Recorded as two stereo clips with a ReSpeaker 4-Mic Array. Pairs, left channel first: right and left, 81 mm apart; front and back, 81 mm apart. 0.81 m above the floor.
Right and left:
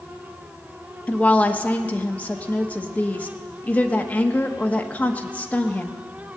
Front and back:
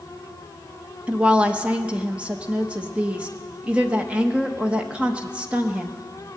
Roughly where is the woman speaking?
Behind right.